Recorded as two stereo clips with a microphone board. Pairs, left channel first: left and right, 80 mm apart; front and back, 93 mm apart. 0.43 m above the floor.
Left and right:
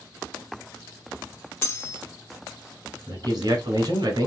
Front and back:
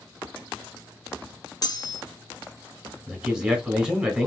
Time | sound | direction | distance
1.6 | cutlery clinking | 35° left | 0.7 m
3.1 | a man speaking | 95° right | 1.5 m